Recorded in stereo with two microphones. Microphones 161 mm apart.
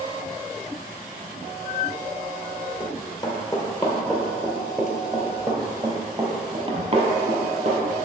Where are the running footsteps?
30° left (ahead or behind), 2 m; by 7.9 s 45° right (ahead or behind), 2.5 m.